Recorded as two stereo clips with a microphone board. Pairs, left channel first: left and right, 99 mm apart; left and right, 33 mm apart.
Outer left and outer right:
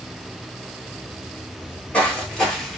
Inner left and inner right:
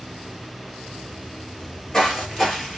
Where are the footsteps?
20° left (ahead or behind), 1.4 m; by 2.8 s centre (ahead or behind), 1.5 m.